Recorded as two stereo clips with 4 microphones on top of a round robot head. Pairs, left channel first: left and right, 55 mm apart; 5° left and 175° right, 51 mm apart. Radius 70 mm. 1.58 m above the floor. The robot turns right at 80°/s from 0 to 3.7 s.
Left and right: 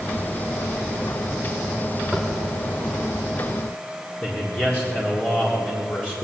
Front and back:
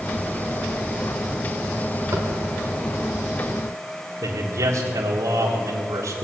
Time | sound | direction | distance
2.1 | tapping | 175° right | 1.3 m
4.2 | a man speaking | 165° left | 1.8 m